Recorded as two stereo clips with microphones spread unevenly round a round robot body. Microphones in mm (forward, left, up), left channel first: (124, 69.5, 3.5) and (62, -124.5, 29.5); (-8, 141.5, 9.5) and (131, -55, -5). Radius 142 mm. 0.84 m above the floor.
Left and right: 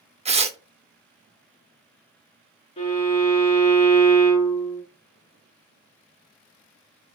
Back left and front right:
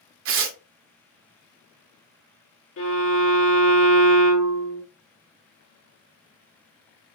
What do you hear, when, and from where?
0.2 s tearing paper: 45° right, 0.7 m
2.8 s a violin: 130° left, 1.4 m